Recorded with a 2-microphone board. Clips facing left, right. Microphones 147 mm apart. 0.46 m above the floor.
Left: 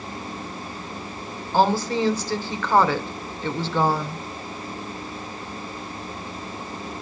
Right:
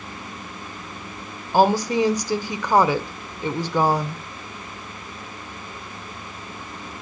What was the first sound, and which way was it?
A woman speaking, 15° right (ahead or behind).